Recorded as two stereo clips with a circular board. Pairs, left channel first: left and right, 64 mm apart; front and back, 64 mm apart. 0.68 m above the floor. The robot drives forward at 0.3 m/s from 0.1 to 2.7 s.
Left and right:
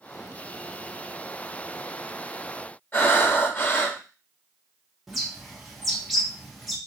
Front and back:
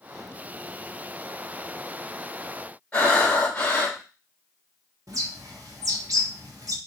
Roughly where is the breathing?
Ahead left.